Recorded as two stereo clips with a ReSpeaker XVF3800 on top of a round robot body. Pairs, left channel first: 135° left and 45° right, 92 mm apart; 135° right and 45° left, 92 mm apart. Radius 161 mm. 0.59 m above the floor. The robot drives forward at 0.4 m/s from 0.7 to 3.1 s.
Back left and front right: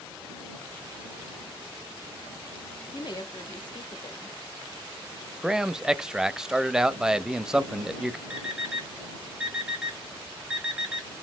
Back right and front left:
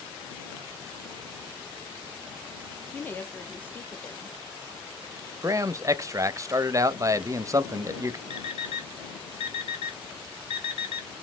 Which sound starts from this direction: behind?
A woman speaking, at 2.9 s.